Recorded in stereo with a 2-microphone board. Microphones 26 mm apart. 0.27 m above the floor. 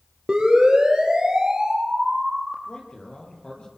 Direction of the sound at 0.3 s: 25° right (ahead or behind).